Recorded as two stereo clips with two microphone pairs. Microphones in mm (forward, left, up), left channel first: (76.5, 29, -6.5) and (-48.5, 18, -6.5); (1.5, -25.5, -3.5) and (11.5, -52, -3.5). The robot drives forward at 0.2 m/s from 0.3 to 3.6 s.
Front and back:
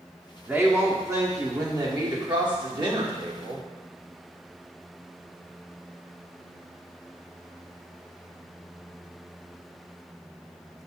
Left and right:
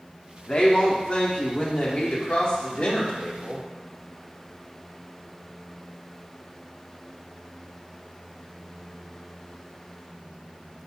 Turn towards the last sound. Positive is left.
turn(degrees=155)